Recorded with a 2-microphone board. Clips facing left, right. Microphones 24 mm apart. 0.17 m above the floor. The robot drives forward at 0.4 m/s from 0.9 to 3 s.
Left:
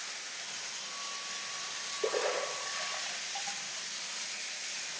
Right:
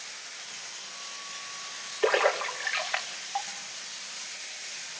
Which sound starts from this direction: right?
A splash, at 2.0 s.